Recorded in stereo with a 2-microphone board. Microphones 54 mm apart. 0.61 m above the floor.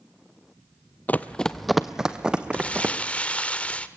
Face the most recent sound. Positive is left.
turn(degrees=25)  # may be behind; listen again after turning